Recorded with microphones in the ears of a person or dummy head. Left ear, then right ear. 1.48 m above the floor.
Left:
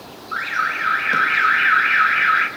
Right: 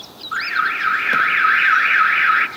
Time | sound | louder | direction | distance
0.3 | an alarm | right 2 dB | 20° right (ahead or behind) | 1.2 m